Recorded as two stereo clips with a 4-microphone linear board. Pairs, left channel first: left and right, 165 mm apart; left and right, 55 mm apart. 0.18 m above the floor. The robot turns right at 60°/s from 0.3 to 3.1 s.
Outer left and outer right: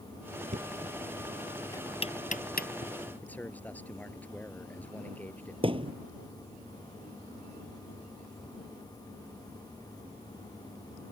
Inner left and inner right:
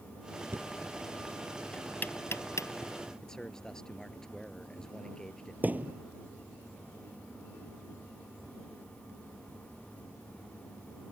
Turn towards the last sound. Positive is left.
turn(degrees=-35)  # may be behind; listen again after turning